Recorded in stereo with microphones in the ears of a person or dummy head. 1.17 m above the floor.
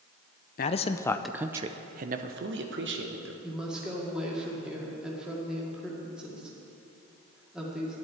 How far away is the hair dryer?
I don't hear a hair dryer.